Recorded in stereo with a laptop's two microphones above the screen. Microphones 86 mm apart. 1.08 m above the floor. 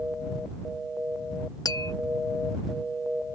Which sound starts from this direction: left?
Tapping, at 1.6 s.